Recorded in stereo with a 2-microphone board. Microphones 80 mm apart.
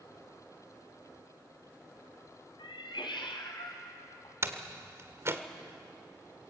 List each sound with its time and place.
2.6 s a cat meowing: 80° left, 2.5 m
4.4 s a door slam: 35° right (ahead or behind), 1.4 m